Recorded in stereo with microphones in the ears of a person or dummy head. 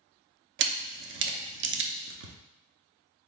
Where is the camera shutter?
55° right (ahead or behind), 0.7 m.